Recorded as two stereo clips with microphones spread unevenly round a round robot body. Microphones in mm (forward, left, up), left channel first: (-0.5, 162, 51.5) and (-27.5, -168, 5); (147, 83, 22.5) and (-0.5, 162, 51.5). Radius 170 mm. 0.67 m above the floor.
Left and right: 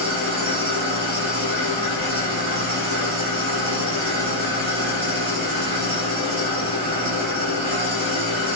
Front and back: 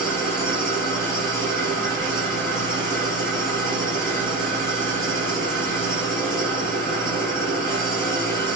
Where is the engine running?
70° right, 1.3 m.